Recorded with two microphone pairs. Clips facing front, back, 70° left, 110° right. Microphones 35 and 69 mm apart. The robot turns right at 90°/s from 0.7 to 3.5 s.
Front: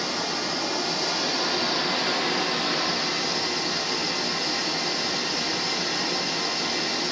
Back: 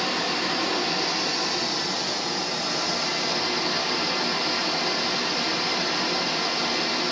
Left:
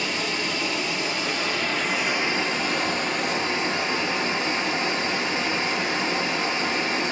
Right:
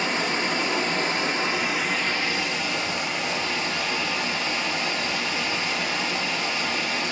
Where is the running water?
135° right, 0.8 m; by 7.1 s 120° left, 0.8 m.